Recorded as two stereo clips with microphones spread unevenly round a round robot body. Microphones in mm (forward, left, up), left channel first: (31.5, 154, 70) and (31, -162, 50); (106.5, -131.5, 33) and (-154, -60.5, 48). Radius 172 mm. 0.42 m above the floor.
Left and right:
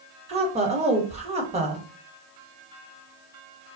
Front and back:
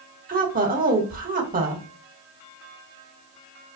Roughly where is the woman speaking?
Behind right.